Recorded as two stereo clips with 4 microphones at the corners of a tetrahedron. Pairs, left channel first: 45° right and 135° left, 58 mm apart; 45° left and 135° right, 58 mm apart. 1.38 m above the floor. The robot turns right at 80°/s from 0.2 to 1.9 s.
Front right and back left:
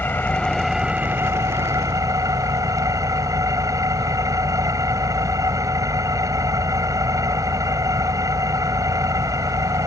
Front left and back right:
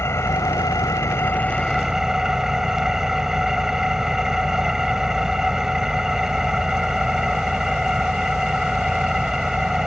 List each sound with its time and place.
0.0 s an engine running: 10° left; by 9.9 s 145° left